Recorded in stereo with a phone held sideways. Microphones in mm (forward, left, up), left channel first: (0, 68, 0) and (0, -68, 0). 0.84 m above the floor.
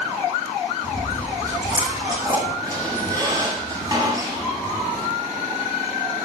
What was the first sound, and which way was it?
Chewing, 30° right (ahead or behind).